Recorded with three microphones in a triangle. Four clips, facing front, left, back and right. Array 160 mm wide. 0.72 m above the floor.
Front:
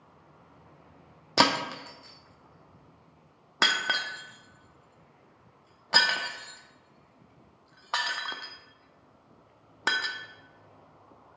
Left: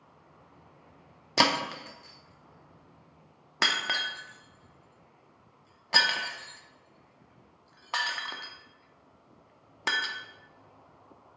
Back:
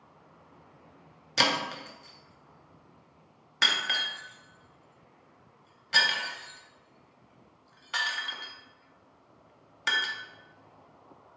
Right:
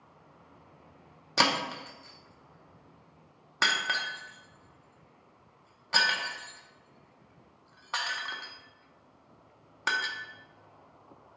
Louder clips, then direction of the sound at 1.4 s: Left 2 dB, front 4 dB; 35° left.